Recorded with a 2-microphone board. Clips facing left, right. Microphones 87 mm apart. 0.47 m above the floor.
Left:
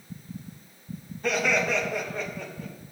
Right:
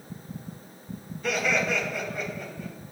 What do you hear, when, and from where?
1.2 s laughter: 40° left (ahead or behind), 4 m; by 2.7 s 30° left (ahead or behind), 4.5 m